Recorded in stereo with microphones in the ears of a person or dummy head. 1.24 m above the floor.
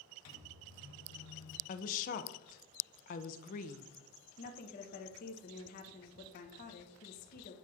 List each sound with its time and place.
0.2 s a microwave: 85° left, 1.3 m
1.7 s a woman speaking: 40° left (ahead or behind), 0.7 m
4.4 s a woman speaking: 50° left (ahead or behind), 1.1 m